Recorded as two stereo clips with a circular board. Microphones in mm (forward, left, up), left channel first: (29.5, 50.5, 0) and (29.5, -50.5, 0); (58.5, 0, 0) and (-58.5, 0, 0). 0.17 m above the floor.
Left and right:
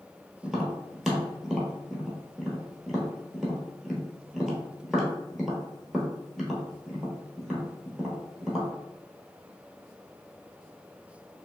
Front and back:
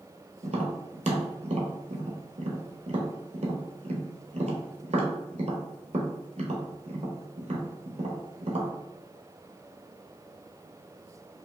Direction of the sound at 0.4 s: Straight behind.